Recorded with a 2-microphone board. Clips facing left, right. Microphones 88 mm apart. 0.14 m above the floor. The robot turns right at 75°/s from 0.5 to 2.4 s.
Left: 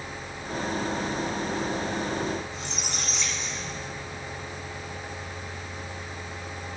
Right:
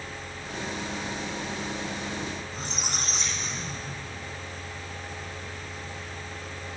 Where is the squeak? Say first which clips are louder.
Even; 45° right (ahead or behind), 1.5 m.